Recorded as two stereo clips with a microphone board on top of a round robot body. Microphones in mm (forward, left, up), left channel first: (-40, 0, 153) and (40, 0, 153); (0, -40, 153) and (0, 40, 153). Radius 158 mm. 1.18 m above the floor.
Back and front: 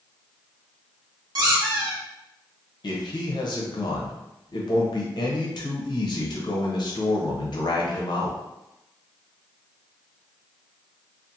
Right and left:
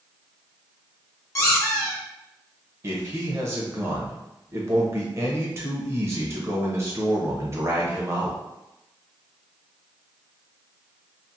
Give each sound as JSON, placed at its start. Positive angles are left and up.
{"t": 1.4, "sound": "a squeak", "azimuth_deg": -40, "distance_m": 0.8}
{"t": 2.8, "sound": "a man speaking", "azimuth_deg": 145, "distance_m": 0.6}